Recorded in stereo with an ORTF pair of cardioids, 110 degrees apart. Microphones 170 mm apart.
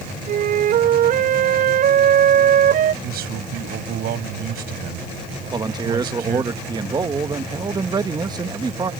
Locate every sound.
0.3 s a flute: 60° right
3.0 s a man speaking: 65° right
5.5 s a man speaking: 25° right